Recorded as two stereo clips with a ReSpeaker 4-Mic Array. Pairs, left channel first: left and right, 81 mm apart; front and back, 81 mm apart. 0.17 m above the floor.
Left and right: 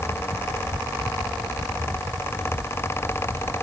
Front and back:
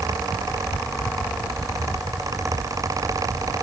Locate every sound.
Only background noise.